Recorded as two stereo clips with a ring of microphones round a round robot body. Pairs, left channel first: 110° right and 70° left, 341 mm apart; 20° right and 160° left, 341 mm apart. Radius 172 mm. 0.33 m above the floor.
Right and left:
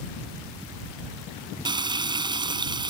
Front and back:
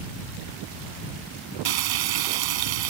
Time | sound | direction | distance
1.6 | frying | 145° left | ?